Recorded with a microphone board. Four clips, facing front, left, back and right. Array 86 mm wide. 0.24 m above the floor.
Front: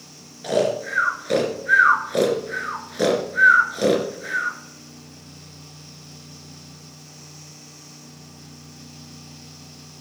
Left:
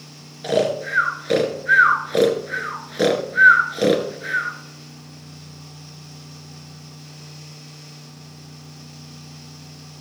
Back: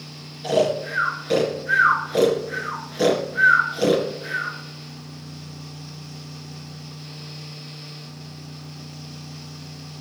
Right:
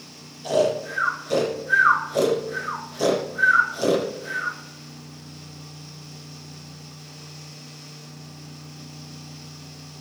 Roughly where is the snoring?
Left.